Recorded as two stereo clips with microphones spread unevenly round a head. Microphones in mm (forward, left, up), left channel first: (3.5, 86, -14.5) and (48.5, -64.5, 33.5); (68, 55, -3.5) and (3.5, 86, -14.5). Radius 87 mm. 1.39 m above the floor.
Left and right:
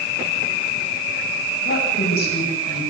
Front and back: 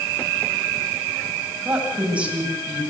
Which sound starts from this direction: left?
A woman speaking, at 1.6 s.